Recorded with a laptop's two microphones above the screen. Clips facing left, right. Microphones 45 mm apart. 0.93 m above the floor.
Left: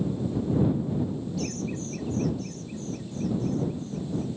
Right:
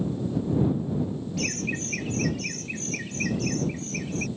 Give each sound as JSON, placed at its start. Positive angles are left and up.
{"t": 1.4, "sound": "laughter", "side_deg": -75}